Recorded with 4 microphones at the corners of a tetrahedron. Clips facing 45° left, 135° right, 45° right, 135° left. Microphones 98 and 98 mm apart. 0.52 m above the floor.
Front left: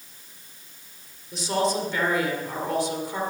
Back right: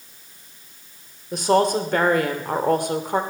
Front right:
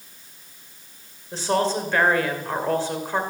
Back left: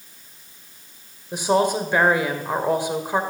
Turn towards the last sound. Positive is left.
turn(degrees=-150)